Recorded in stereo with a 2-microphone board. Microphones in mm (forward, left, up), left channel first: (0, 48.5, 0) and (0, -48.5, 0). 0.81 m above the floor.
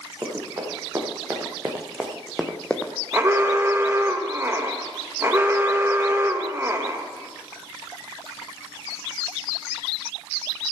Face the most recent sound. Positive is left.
turn(degrees=-25)  # may be behind; listen again after turning